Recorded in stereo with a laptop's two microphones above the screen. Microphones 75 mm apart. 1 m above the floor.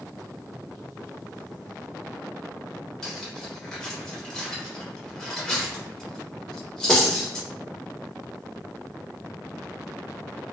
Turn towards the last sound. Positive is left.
turn(degrees=10)  # may be behind; listen again after turning